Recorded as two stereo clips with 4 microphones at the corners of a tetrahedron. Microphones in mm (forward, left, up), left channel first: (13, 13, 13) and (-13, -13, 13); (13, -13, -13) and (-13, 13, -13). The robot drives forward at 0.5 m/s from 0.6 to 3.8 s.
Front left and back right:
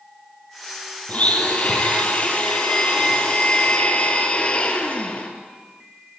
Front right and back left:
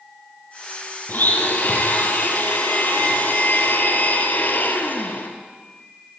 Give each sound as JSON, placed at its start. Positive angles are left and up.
{"t": 1.1, "sound": "a blender", "azimuth_deg": -10, "distance_m": 4.5}